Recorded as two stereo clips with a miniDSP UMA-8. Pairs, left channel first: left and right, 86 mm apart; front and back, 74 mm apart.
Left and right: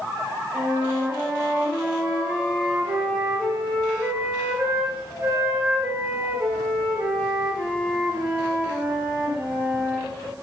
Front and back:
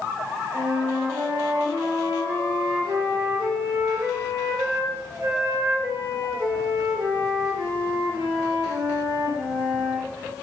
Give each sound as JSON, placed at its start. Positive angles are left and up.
{"t": 0.5, "sound": "a flute", "azimuth_deg": -160, "distance_m": 2.5}